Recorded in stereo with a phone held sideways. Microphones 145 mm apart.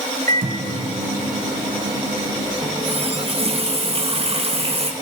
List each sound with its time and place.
0.3 s a microwave: 70° right (ahead or behind), 1.9 m
2.6 s a running tap: 40° right (ahead or behind), 1.0 m